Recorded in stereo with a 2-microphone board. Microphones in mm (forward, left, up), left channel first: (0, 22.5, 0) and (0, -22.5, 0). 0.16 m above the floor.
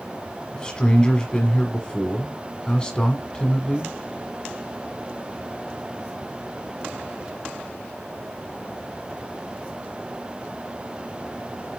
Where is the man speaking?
20° left (ahead or behind), 1.2 m.